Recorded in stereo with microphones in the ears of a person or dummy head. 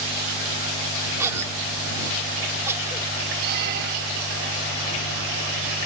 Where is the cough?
15° right (ahead or behind).